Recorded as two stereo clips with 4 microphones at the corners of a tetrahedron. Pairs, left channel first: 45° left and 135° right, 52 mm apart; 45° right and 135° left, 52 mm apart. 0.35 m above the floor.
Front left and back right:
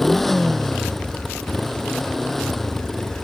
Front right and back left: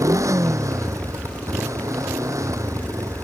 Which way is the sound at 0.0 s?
135° left.